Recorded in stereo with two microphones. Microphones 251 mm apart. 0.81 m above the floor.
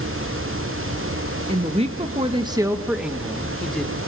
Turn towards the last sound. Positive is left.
turn(degrees=5)  # may be behind; listen again after turning